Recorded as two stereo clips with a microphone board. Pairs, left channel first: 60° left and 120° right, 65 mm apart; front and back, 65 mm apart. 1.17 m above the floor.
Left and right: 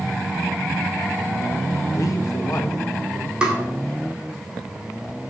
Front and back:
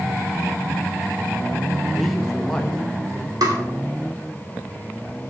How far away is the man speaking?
About 1.1 m.